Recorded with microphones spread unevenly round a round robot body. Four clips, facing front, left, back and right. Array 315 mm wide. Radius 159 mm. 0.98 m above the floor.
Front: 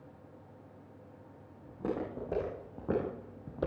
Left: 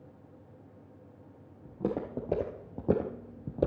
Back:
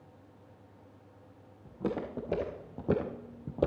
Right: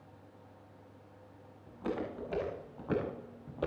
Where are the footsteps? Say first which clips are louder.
Left 4 dB, back 1 dB; 100° left, 3.5 m; by 3.7 s 135° left, 1.1 m.